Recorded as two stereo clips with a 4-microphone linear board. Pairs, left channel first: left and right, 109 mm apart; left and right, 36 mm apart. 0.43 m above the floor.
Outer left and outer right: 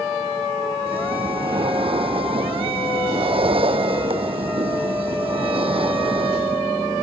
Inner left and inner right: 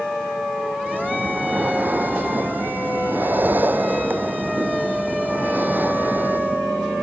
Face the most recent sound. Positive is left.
turn(degrees=-60)  # may be behind; listen again after turning